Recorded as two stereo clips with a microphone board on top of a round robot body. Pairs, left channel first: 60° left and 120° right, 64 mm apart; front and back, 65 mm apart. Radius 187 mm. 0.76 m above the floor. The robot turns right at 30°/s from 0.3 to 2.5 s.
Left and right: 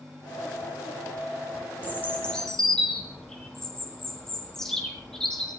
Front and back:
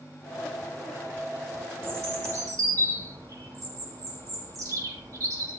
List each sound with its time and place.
1.8 s a bird: 120° left, 3.5 m; by 5.5 s 140° left, 3.5 m